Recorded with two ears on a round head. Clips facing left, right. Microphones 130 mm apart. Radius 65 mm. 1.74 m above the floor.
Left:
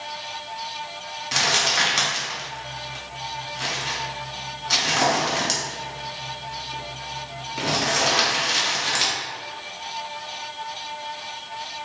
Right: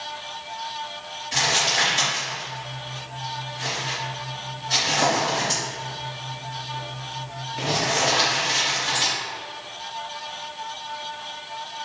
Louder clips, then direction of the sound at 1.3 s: Even; 75° left (ahead or behind).